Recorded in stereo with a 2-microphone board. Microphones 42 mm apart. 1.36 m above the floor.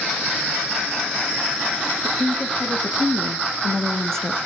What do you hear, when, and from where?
2.0 s a woman speaking: centre (ahead or behind), 3 m; by 4.4 s 10° left (ahead or behind), 1.7 m